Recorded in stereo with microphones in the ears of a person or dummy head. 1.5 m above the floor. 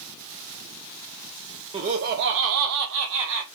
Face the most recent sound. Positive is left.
turn(degrees=-70)  # may be behind; listen again after turning